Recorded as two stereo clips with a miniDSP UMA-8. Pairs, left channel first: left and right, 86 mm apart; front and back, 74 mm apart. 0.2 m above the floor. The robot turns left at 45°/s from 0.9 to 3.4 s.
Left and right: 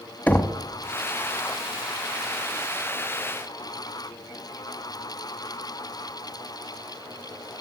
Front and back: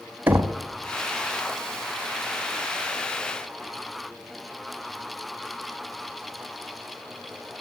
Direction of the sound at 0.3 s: 140° left.